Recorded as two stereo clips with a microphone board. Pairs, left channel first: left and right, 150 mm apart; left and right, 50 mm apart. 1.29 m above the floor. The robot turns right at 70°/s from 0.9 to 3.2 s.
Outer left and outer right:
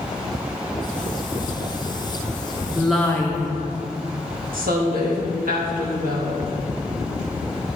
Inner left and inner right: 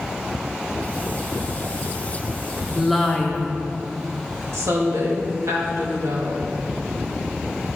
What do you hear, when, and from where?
2.8 s a woman speaking: 15° right, 1.1 m; by 3.6 s 20° left, 1.1 m
4.5 s a woman speaking: 75° right (ahead or behind), 1.9 m